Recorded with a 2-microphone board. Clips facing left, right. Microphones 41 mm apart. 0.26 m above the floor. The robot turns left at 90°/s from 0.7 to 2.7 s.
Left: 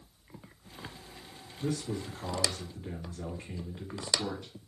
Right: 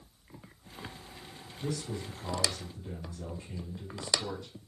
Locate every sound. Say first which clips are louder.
1.6 s a man speaking: left 3 dB; 145° left, 2.5 m; by 4.5 s 45° left, 2.5 m